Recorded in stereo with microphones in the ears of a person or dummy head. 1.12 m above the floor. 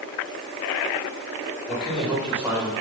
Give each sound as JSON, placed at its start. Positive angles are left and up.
{"t": 1.7, "sound": "a man speaking", "side_deg": 5, "distance_m": 3.5}